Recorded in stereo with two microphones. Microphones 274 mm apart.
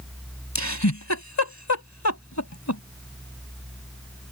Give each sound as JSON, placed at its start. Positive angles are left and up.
{"t": 0.6, "sound": "a giggle", "side_deg": 80}